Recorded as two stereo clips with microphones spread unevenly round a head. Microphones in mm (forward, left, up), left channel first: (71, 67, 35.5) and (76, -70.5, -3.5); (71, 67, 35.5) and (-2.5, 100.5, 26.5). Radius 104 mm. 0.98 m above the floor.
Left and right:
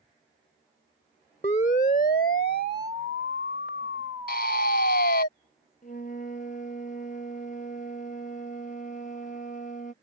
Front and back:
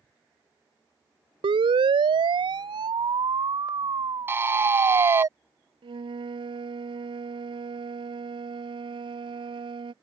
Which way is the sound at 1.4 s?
155° left.